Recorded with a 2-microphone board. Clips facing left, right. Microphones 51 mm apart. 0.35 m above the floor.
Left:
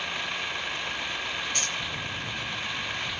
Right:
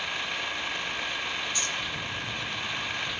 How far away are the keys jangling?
About 4.5 m.